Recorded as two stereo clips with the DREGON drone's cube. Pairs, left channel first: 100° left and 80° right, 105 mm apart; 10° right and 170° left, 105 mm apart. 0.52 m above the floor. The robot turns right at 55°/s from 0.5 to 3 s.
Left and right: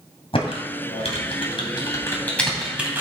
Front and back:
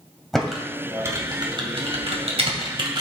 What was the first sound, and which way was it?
Typing on a keyboard, 75° left.